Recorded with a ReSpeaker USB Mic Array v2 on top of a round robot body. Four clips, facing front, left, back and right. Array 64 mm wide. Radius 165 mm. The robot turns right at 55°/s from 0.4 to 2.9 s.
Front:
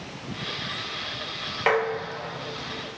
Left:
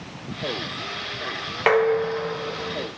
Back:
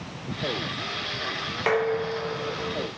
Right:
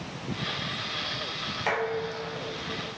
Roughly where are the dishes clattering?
Left.